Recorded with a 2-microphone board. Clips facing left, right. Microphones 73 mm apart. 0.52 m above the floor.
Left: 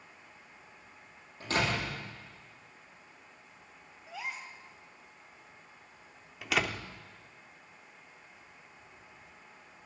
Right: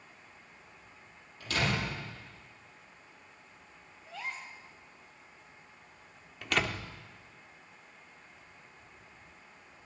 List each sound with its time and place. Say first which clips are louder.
1.4 s a door slam: left 1 dB; 35° left (ahead or behind), 9.5 m
4.1 s a gasp: even; 10° left (ahead or behind), 2 m
6.4 s a door slam: even; 5° left (ahead or behind), 0.9 m